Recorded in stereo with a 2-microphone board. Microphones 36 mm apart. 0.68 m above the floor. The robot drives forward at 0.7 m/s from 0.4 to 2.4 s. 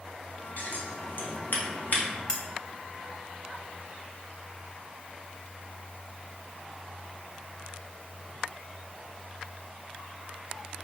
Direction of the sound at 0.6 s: 50° left (ahead or behind).